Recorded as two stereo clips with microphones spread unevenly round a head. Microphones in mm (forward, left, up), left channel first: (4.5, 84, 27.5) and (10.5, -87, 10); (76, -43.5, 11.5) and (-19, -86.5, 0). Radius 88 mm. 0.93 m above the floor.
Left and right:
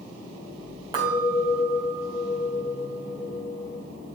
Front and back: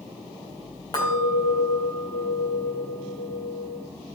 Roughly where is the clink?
Ahead.